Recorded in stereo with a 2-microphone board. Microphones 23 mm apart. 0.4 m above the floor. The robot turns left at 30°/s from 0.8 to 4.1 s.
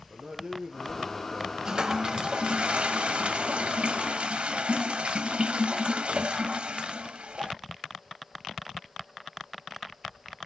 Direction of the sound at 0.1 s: 45° right (ahead or behind).